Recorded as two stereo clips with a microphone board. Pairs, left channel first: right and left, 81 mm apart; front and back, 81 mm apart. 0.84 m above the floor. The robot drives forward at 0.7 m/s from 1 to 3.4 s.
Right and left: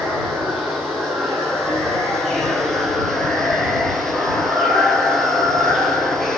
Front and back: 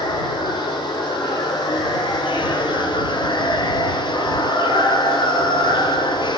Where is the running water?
Straight ahead, 4.5 m; by 6.4 s 5° right, 3 m.